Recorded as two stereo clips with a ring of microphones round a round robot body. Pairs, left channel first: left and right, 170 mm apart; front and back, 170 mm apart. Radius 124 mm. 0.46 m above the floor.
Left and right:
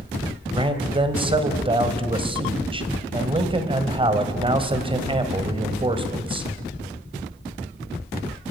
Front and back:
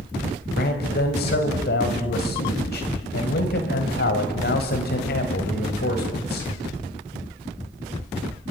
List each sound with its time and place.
0.5 s a man speaking: 35° right, 2.5 m